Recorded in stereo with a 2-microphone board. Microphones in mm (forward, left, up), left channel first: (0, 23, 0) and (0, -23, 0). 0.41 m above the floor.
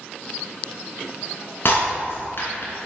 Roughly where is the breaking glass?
Left.